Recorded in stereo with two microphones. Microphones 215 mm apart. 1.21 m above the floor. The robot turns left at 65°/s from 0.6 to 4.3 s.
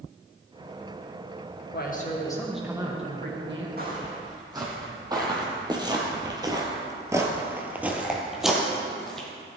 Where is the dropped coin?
I don't hear a dropped coin.